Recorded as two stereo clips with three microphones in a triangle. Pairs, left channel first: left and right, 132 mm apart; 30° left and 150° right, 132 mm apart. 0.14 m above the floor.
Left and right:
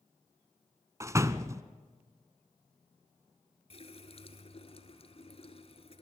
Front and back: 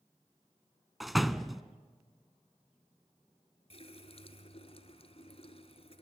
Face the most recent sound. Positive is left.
turn(degrees=60)